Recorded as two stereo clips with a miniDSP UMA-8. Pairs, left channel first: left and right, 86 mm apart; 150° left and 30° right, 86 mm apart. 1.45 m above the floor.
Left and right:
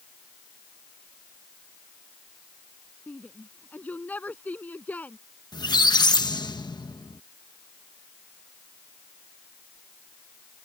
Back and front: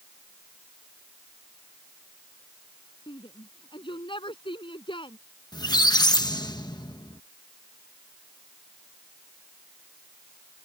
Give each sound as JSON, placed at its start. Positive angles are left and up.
{"t": 3.1, "sound": "a shout", "azimuth_deg": 160}
{"t": 5.5, "sound": "a squeak", "azimuth_deg": 120}